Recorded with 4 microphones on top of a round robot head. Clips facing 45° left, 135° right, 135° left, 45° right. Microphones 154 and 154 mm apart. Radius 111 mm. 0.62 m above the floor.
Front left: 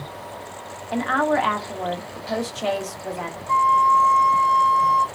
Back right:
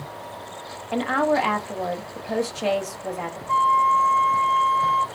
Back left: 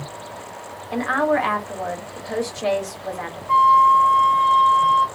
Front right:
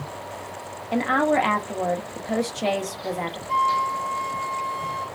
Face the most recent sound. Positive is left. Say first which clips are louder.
# front left 2 dB, back left 10 dB
turn(degrees=120)